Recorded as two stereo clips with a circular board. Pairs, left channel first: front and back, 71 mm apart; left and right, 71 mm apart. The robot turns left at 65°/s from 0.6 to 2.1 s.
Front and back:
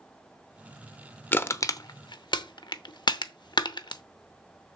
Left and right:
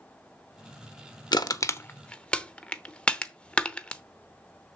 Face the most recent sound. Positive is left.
turn(degrees=15)